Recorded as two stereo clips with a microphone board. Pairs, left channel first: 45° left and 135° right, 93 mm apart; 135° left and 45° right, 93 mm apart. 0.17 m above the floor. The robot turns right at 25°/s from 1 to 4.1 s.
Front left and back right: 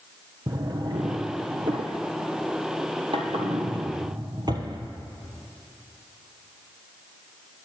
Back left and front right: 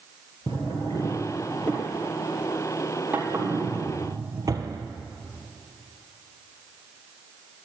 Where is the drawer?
170° right, 1.8 m; by 4.8 s 90° right, 1.8 m.